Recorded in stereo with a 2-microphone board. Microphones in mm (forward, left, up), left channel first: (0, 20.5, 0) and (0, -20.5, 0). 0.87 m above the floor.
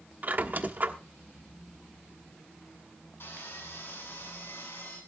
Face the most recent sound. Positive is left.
turn(degrees=70)  # may be behind; listen again after turning